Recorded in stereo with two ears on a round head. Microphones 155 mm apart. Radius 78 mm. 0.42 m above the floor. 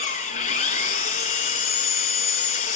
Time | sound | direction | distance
0.0 | an engine running | 45° left (ahead or behind) | 3 m